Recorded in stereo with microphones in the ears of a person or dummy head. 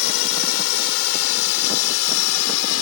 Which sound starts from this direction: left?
A drone, at 0.0 s.